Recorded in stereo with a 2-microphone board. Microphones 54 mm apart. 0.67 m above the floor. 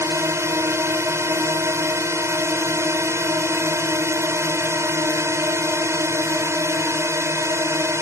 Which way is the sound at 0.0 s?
60° right (ahead or behind).